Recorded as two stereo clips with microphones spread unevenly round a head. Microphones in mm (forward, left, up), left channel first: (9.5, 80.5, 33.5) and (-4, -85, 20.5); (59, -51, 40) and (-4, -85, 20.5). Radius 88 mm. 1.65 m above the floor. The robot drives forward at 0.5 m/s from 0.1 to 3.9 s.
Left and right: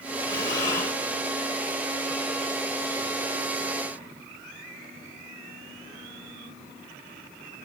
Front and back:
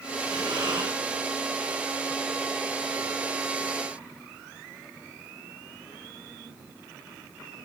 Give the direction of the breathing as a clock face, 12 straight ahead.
7 o'clock.